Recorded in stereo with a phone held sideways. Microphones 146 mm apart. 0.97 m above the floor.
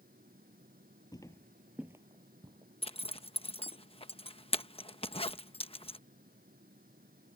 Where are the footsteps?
25° left (ahead or behind); by 3.8 s 40° right (ahead or behind).